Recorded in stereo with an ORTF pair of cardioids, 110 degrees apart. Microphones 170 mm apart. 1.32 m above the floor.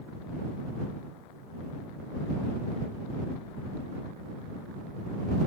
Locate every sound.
Only background noise.